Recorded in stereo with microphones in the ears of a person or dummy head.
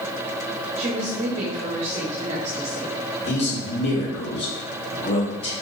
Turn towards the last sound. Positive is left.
turn(degrees=35)  # may be behind; listen again after turning